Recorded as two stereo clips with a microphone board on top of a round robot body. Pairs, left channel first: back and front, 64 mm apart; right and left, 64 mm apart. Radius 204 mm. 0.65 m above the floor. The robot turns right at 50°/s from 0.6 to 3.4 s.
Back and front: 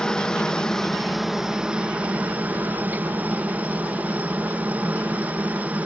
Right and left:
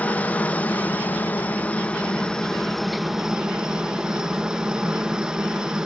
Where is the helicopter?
115° right; by 5.9 s 25° left.